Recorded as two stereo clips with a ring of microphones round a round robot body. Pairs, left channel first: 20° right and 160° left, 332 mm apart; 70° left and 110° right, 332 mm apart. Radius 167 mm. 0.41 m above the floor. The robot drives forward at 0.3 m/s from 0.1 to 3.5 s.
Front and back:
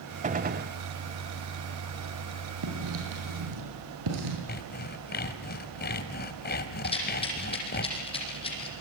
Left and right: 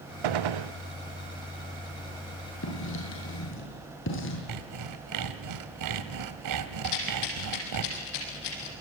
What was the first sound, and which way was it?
A gunshot, 130° right.